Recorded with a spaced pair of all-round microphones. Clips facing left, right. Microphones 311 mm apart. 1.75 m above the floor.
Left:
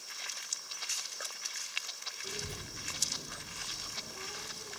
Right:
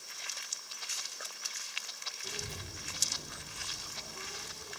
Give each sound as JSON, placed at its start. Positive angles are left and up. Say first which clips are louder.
{"t": 2.2, "sound": "a child speaking", "louder": "left 1 dB", "side_deg": 10, "distance_m": 1.0}